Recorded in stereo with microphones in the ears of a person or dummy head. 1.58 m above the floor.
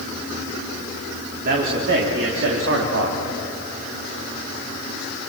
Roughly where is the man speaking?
Right.